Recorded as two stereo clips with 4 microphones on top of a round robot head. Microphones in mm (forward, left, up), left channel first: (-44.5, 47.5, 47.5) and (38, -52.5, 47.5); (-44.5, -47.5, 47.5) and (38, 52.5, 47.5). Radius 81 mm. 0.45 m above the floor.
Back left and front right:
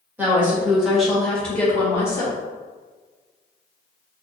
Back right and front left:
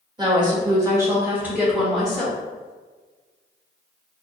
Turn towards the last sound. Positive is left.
turn(degrees=160)